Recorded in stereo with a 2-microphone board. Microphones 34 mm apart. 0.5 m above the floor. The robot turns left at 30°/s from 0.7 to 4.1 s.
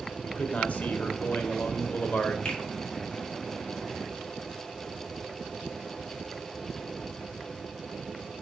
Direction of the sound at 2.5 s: 40° left (ahead or behind).